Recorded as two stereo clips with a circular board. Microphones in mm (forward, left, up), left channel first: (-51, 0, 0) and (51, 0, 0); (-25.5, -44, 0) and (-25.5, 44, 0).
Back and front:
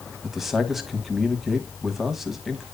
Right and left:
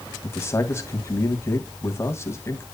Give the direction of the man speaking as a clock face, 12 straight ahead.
3 o'clock.